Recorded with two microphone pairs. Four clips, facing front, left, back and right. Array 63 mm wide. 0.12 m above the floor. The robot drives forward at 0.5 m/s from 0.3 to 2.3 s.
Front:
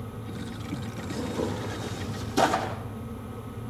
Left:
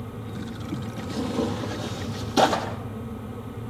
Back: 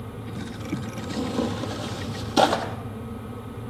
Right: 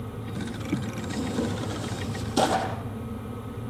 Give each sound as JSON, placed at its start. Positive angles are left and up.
{"t": 1.0, "sound": "tearing paper", "azimuth_deg": 160, "distance_m": 4.5}